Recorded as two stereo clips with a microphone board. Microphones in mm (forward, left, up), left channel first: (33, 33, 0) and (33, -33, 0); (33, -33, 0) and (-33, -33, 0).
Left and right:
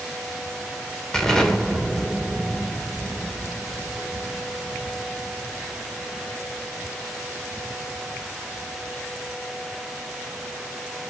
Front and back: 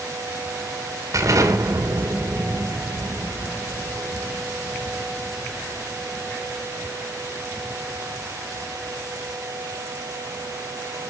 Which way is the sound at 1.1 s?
170° left.